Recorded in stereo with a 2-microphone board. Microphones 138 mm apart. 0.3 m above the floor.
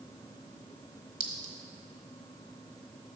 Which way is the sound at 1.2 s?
40° right (ahead or behind).